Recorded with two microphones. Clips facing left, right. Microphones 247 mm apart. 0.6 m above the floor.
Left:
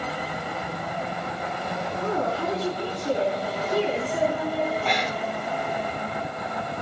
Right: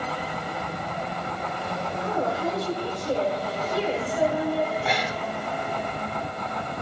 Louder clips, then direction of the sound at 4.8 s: Left 1 dB; centre (ahead or behind).